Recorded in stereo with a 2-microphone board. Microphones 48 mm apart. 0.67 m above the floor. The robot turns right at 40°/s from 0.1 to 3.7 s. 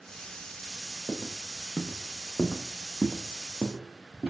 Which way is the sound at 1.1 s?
Centre (ahead or behind).